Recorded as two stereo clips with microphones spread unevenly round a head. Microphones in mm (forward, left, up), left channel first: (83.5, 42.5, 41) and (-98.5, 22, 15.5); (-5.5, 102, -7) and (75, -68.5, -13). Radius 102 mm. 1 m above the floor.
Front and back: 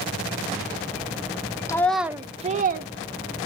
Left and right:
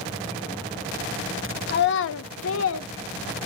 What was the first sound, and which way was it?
A child speaking, 80° left.